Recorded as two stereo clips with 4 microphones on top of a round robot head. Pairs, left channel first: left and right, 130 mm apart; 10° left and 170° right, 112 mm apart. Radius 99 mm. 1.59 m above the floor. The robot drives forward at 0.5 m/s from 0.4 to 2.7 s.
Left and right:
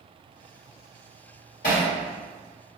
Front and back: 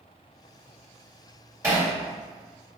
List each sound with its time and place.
1.6 s hammering: 130° left, 1.6 m